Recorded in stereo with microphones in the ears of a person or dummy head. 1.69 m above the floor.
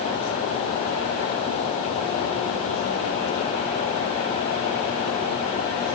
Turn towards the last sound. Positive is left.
No sound to turn to.